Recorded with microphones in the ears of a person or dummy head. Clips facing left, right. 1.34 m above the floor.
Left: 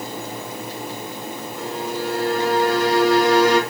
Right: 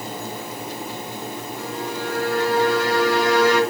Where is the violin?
65° left (ahead or behind), 2.5 m.